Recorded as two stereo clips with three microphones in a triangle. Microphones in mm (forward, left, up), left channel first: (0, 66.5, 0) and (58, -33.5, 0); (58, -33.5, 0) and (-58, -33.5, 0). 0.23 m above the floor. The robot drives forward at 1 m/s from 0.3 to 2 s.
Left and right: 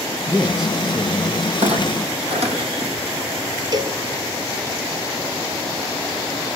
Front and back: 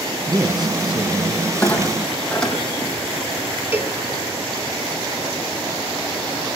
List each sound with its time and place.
0.3 s a man speaking: 135° right, 1.4 m; by 1.5 s 160° right, 2 m
1.6 s a clunk: 80° right, 6.5 m
3.7 s a cowbell: 110° right, 3 m